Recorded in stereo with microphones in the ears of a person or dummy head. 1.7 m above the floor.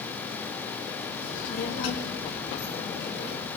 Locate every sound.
1.2 s a child speaking: 65° left (ahead or behind), 4 m